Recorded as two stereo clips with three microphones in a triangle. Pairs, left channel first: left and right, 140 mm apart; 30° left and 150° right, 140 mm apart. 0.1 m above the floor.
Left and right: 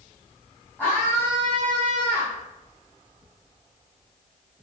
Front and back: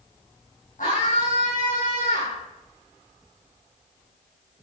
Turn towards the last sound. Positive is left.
turn(degrees=15)